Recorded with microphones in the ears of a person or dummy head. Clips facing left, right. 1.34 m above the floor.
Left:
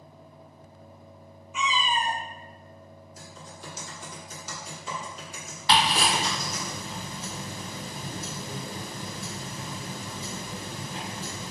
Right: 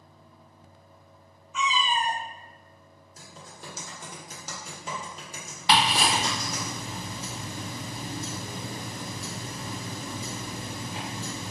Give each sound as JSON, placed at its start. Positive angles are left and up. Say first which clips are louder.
{"t": 1.5, "sound": "a cat meowing", "louder": "even", "side_deg": 15, "distance_m": 0.6}
{"t": 3.2, "sound": "typing on a keyboard", "louder": "even", "side_deg": -40, "distance_m": 1.7}
{"t": 5.7, "sound": "ticking", "louder": "even", "side_deg": -15, "distance_m": 1.1}